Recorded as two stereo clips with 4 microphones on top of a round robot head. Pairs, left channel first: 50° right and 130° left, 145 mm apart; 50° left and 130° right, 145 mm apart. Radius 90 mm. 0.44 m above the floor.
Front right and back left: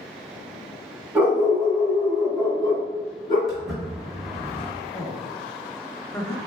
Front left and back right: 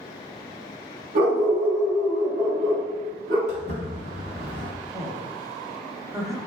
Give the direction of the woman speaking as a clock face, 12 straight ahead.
3 o'clock.